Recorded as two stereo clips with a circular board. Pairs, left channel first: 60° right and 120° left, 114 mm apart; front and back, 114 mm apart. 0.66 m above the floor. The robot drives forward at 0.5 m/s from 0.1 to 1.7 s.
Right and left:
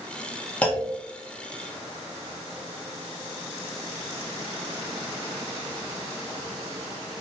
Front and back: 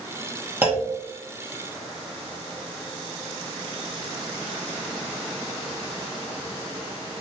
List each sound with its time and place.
0.6 s a clunk: 130° right, 1.2 m; by 1.0 s 140° right, 1.2 m